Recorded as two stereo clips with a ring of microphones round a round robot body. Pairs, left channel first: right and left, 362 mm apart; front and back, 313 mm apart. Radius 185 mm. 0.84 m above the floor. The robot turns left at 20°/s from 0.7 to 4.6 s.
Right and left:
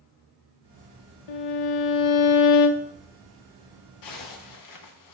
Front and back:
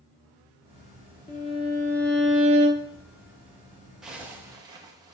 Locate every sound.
1.3 s a violin: 70° right, 1.3 m; by 2.9 s 105° right, 1.3 m
4.0 s a zipper: 90° right, 1.3 m; by 5.1 s 105° right, 1.3 m